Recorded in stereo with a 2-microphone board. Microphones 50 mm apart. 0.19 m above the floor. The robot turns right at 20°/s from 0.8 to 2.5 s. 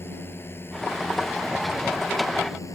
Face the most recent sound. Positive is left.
turn(degrees=85)